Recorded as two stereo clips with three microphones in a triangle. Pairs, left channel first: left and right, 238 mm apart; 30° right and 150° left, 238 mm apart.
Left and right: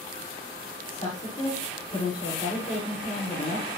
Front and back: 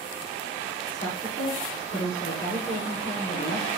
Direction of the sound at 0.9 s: 25° left.